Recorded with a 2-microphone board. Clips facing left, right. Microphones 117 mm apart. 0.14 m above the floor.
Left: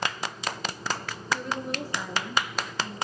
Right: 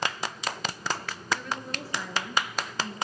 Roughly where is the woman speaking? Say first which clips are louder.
Left 4 dB; left.